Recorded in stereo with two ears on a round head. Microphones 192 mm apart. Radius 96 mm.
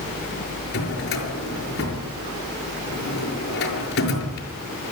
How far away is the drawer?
About 6 m.